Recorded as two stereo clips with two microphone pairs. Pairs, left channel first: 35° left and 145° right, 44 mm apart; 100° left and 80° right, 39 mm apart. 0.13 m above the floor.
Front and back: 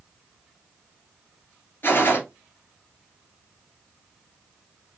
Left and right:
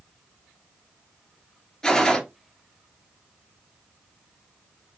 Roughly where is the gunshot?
Ahead left.